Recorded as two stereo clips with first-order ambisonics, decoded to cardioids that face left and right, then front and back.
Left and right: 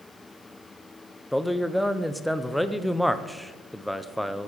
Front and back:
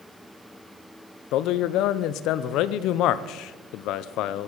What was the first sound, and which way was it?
A man speaking, straight ahead.